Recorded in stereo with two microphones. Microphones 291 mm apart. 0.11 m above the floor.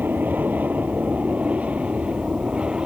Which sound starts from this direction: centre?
An aircraft, at 0.0 s.